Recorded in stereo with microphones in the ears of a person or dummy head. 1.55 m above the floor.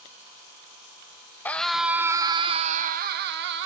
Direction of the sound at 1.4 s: 10° left (ahead or behind).